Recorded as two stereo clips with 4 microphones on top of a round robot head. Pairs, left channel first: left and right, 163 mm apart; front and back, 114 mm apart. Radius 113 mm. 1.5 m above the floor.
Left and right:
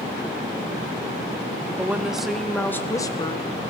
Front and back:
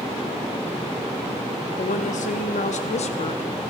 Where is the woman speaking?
10° right, 1.5 m; by 3.4 s 35° left, 1.0 m.